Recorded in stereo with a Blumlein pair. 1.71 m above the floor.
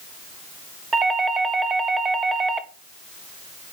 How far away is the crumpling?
I don't hear crumpling.